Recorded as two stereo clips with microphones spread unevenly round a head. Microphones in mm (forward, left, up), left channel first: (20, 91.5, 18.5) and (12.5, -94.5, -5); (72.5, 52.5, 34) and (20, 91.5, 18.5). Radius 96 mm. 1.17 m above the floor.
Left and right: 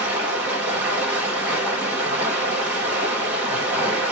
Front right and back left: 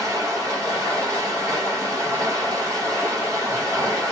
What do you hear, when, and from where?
0.0 s running water: 175° right, 1.6 m